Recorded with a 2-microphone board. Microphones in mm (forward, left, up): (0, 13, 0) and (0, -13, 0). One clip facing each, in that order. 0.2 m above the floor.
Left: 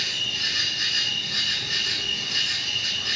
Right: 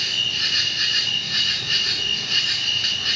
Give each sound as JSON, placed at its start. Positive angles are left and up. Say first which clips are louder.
{"t": 0.0, "sound": "an insect", "louder": "right 4 dB", "side_deg": -45, "distance_m": 1.2}